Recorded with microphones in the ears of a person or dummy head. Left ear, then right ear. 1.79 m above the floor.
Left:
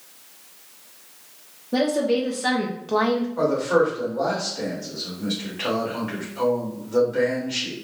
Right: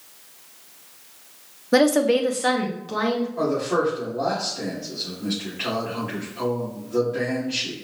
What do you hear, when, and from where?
1.7 s a woman speaking: 55° right (ahead or behind), 0.6 m; by 3.3 s 20° left (ahead or behind), 0.9 m
3.4 s a man speaking: 35° left (ahead or behind), 2.0 m